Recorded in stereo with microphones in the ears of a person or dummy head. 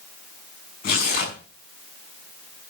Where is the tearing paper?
45° left (ahead or behind), 6.5 m.